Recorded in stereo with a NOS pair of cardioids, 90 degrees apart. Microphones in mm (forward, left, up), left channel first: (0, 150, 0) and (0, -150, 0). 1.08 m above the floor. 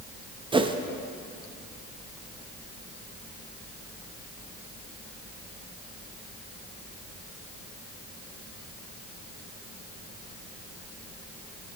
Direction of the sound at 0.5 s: 15° right.